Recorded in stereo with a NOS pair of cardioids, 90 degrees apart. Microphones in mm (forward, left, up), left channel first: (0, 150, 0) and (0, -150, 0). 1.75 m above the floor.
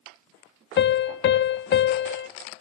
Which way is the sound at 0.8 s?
40° left.